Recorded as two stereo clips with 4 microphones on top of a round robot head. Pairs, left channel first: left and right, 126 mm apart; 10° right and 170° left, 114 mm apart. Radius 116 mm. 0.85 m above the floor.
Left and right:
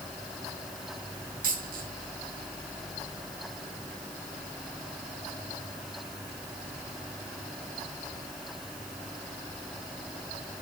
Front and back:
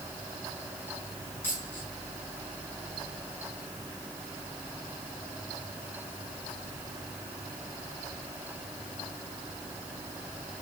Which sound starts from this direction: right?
A dropped coin, at 1.4 s.